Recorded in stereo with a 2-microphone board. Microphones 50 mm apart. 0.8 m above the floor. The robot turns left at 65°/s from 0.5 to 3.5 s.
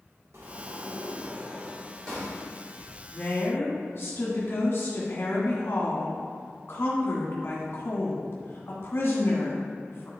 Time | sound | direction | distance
0.3 | a sliding door | 95° right | 1.9 m
3.1 | a woman speaking | 40° left (ahead or behind) | 1.4 m